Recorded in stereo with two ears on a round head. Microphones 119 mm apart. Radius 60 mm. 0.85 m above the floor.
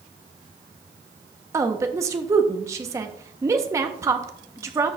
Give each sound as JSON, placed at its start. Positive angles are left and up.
{"t": 1.5, "sound": "a woman speaking", "side_deg": -20, "distance_m": 0.8}